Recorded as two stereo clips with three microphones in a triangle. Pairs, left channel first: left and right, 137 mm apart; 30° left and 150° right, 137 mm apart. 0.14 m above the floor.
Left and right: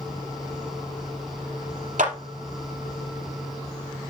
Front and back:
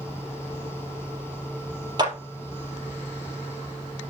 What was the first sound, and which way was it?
A clap, 95° right.